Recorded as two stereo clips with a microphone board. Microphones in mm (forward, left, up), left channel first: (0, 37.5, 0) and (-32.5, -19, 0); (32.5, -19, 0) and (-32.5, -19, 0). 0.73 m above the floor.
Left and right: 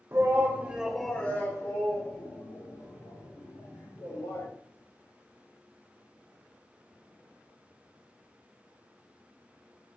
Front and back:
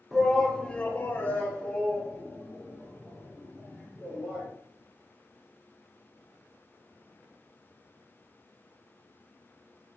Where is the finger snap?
No finger snap in this recording.